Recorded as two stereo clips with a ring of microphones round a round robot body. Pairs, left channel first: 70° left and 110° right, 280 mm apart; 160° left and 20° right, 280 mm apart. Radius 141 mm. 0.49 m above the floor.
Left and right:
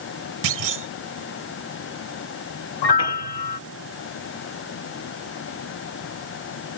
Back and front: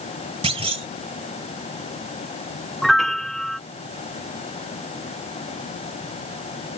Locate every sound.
0.4 s a clunk: 95° right
2.8 s a piano: 70° left